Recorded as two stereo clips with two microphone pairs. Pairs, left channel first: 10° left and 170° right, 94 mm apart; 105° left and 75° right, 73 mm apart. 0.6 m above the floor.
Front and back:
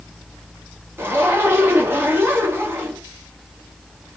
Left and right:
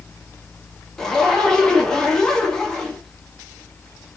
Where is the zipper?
175° left, 1.1 m.